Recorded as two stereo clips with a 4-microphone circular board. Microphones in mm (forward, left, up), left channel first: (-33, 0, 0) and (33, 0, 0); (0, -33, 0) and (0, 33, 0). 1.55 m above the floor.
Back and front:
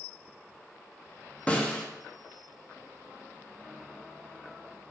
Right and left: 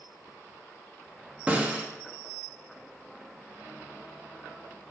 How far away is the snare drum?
About 0.9 m.